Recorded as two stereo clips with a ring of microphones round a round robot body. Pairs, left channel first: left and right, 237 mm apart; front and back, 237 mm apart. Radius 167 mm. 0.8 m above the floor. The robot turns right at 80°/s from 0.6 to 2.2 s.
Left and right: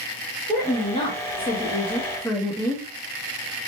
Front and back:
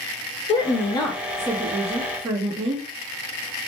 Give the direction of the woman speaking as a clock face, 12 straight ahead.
11 o'clock.